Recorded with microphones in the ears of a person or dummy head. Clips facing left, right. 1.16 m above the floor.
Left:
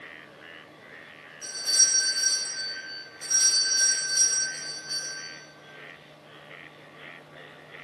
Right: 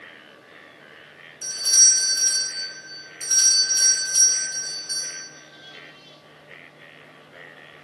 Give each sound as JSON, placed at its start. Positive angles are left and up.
{"t": 1.4, "sound": "a doorbell", "side_deg": -45, "distance_m": 0.6}